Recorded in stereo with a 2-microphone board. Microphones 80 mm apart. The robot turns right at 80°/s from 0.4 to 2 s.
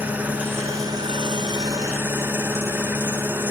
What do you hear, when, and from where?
0.0 s an engine running: 160° right, 0.9 m; by 3.5 s 30° right, 0.9 m